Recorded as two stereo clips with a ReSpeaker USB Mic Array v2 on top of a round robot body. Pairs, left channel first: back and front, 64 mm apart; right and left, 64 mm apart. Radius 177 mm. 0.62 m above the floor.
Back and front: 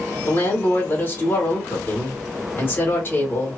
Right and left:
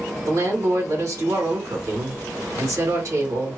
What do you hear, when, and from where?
0.3 s a woman speaking: 120° left, 2 m